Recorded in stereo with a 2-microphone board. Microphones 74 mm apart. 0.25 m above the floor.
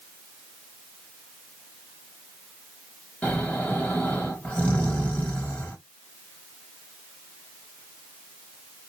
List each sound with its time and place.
3.2 s snoring: 20° left (ahead or behind), 1.3 m